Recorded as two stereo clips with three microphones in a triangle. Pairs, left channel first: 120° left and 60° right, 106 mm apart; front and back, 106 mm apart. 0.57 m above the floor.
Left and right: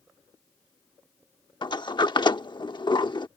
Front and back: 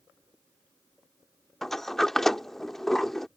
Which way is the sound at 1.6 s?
85° left.